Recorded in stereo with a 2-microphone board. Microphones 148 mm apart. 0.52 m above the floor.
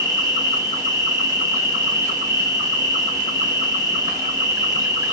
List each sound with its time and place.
0.0 s an insect: 25° right (ahead or behind), 0.9 m